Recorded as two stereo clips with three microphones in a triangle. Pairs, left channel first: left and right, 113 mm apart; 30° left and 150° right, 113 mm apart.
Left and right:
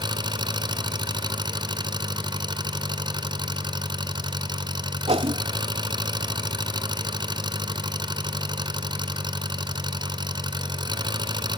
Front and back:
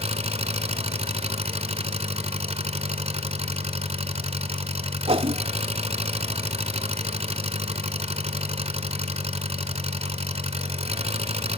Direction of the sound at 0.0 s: 135° right.